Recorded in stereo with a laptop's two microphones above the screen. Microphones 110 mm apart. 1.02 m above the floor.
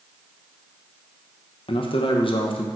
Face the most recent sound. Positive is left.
turn(degrees=50)  # may be behind; listen again after turning